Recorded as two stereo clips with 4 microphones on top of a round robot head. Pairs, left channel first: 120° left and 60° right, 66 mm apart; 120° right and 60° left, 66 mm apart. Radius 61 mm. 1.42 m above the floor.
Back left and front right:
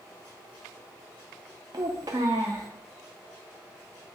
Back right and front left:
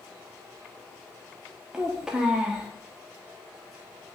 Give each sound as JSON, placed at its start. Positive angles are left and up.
{"t": 1.7, "sound": "a child speaking", "azimuth_deg": -20, "distance_m": 0.5}